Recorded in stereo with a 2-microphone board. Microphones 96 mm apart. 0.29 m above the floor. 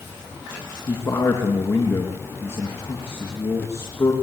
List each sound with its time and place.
0.9 s a man speaking: 25° left (ahead or behind), 4 m